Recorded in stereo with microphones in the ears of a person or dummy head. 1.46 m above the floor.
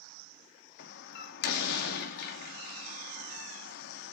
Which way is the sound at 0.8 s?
60° left (ahead or behind).